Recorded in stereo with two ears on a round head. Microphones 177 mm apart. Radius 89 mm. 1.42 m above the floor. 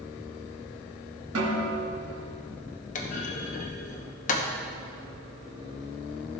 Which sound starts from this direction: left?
A clunk, at 3.0 s.